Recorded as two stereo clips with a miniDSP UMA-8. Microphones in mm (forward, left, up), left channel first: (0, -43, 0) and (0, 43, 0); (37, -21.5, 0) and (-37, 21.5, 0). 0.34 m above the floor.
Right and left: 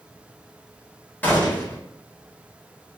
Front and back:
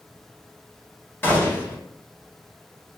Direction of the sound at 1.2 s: 50° right.